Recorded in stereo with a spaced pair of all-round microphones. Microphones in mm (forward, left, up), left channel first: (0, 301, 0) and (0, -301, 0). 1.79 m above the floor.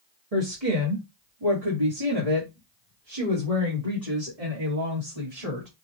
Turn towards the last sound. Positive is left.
turn(degrees=-85)